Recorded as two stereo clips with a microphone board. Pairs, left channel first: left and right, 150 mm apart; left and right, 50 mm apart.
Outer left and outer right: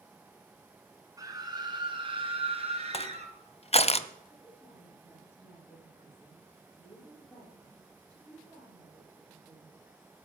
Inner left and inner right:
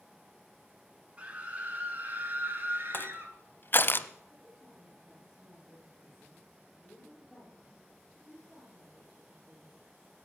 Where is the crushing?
45° left (ahead or behind), 0.5 m.